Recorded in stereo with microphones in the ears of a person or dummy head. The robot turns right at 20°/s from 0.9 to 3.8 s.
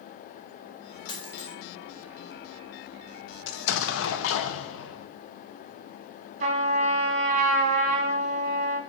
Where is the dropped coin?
20° left (ahead or behind), 2 m; by 1.5 s 25° left (ahead or behind), 2 m.